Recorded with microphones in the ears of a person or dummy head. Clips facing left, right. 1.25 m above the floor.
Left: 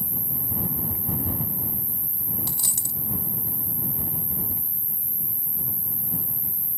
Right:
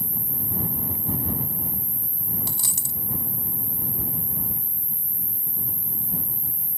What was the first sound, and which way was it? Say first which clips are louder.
An insect: right 1 dB; 25° right (ahead or behind).